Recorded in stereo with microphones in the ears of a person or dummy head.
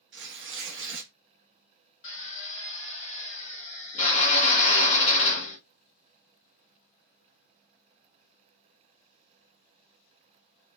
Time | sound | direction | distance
0.1 | tearing paper | 55° right (ahead or behind) | 0.7 m
2.0 | a drill | 45° left (ahead or behind) | 0.9 m